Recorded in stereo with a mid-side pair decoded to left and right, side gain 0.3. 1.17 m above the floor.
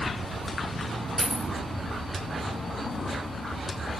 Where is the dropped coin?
Straight ahead, 1.7 m.